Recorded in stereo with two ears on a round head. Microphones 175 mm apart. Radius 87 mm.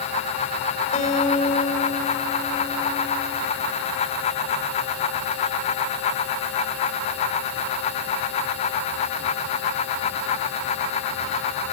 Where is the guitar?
40° left (ahead or behind), 3 m.